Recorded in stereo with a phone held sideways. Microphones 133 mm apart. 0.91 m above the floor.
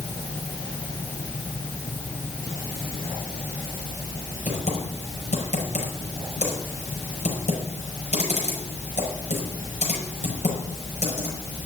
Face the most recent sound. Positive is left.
turn(degrees=55)  # may be behind; listen again after turning